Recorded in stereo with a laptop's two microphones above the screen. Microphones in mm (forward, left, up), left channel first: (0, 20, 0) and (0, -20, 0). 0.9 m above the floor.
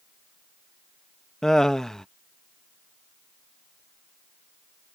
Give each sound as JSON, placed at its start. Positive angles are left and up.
{"t": 1.4, "sound": "laughter", "side_deg": 15}